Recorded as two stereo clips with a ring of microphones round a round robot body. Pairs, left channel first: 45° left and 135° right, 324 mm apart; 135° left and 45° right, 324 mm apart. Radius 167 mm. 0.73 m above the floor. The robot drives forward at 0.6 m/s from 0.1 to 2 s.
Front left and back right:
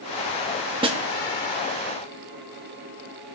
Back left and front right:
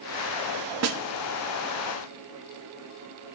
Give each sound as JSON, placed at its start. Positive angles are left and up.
{"t": 0.8, "sound": "a snare drum", "azimuth_deg": -65, "distance_m": 1.3}